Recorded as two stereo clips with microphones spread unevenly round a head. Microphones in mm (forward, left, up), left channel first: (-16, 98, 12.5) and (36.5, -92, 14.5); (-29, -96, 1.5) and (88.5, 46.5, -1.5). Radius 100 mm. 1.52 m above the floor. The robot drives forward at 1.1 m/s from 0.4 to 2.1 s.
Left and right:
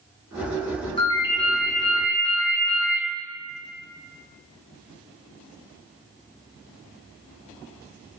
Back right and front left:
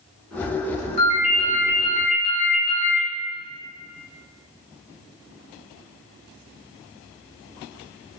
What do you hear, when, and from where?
1.0 s a ringtone: 170° left, 1.0 m; by 3.0 s 175° left, 2 m